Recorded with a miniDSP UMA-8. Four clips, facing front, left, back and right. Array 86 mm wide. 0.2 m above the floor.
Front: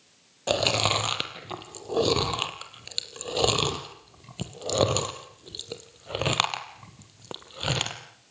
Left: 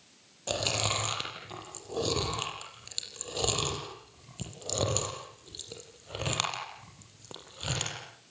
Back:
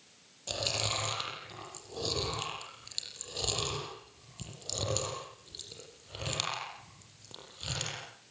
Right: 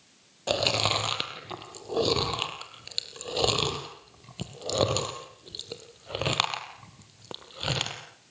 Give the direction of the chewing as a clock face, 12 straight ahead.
1 o'clock.